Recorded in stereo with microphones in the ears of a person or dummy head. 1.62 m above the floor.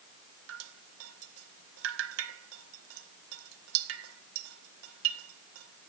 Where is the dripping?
85° right, 1.5 m.